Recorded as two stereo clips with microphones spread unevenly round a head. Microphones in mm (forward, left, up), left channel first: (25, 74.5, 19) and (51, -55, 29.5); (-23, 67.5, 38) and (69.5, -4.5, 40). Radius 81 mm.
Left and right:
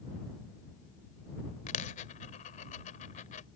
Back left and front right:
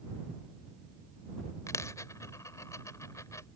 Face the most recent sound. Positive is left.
turn(degrees=80)